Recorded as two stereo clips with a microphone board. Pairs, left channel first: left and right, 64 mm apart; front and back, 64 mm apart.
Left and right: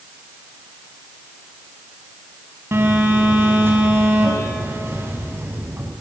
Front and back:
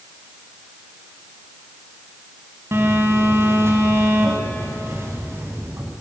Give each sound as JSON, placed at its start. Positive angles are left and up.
{"t": 2.7, "sound": "a phone buzzing", "azimuth_deg": -135, "distance_m": 5.0}